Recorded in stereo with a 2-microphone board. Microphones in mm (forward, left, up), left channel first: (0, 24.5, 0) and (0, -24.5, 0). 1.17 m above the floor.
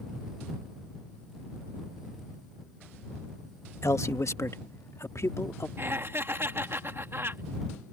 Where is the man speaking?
75° left (ahead or behind).